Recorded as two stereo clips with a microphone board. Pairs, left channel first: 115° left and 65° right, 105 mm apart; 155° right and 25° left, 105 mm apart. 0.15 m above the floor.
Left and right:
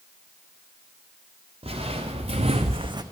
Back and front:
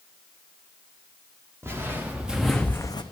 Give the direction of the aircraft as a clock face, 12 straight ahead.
I don't hear an aircraft.